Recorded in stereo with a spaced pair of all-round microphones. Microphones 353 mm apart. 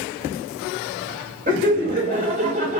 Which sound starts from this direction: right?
Laughter, at 1.5 s.